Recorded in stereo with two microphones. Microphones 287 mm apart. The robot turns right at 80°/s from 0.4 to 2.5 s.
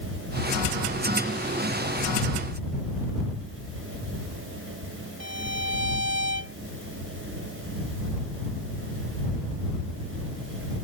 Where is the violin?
70° left (ahead or behind).